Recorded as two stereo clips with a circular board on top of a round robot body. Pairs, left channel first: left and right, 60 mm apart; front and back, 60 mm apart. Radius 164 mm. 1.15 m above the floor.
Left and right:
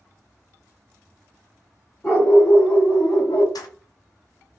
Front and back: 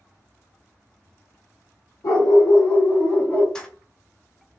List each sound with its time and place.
2.0 s a dog barking: 20° left, 1.5 m; by 3.5 s 75° left, 1.0 m
3.5 s keys jangling: 80° left, 0.6 m